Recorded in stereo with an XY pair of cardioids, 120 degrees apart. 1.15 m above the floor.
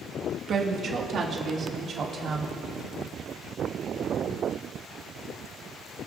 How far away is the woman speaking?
About 1.6 m.